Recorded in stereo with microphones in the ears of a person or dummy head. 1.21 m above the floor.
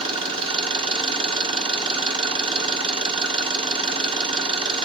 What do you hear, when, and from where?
0.0 s an engine running: 30° right (ahead or behind), 1.0 m